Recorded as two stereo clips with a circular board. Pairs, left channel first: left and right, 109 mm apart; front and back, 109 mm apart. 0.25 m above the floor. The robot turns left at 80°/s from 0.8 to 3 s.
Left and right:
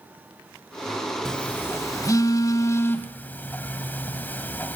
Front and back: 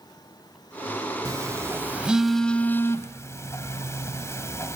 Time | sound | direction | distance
1.2 | a phone buzzing | 170° left | 1.7 m